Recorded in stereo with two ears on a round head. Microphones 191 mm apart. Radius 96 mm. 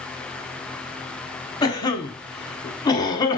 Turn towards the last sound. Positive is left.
turn(degrees=20)  # may be behind; listen again after turning